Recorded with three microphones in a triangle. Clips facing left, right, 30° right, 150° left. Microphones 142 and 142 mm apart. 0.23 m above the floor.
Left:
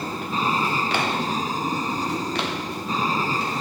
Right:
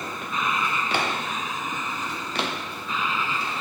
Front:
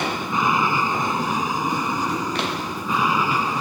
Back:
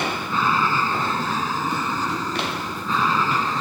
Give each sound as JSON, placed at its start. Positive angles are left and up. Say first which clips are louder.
{"t": 0.0, "sound": "an aircraft", "louder": "left 4 dB, front 1 dB", "azimuth_deg": 40}